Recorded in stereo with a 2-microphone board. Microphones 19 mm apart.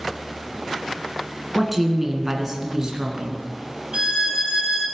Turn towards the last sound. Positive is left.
turn(degrees=-65)  # may be behind; listen again after turning